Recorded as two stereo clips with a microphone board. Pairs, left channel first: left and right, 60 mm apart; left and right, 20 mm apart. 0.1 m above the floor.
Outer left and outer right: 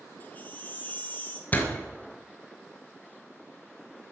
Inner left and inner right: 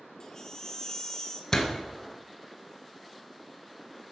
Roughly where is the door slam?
Left.